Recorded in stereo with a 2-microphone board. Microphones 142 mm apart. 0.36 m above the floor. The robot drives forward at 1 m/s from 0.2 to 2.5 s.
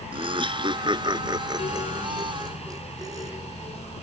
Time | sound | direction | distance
0.1 | laughter | 40° right (ahead or behind) | ?